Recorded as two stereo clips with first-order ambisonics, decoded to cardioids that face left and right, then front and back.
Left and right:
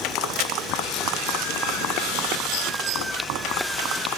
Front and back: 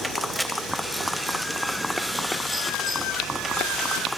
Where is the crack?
90° left, 2.5 m.